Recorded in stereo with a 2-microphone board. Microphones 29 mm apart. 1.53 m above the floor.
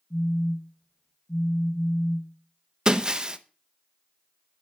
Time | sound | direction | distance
0.1 | a phone buzzing | 45° left (ahead or behind) | 2.5 m
2.9 | breaking glass | 25° right (ahead or behind) | 0.7 m